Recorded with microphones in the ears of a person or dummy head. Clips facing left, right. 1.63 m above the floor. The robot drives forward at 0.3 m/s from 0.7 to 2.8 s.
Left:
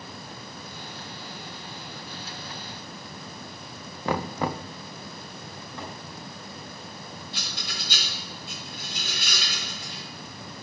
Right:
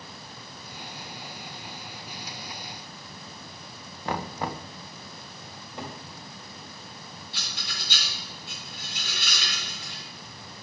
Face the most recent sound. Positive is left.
turn(degrees=45)  # may be behind; listen again after turning